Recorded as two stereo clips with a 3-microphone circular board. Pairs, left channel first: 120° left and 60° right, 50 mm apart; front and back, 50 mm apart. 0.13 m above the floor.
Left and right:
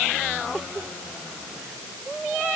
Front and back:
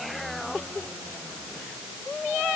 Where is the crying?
I don't hear crying.